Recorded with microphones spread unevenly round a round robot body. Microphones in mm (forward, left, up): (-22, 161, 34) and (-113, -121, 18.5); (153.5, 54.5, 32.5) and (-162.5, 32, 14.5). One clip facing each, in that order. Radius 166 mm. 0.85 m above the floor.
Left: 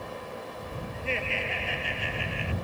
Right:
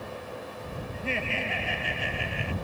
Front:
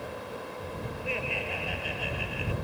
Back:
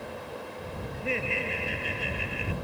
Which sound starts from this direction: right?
Laughter, at 0.9 s.